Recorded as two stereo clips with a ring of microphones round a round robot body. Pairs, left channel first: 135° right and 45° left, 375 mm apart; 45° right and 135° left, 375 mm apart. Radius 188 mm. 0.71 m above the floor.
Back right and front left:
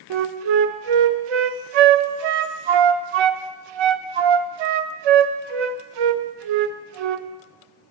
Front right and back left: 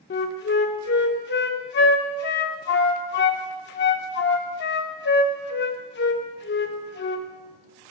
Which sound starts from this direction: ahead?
A flute, at 0.1 s.